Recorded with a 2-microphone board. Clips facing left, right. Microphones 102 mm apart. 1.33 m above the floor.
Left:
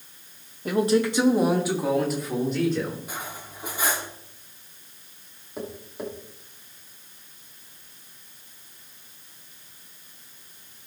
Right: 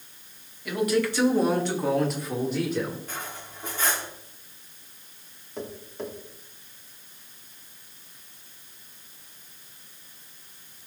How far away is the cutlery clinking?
About 1.6 m.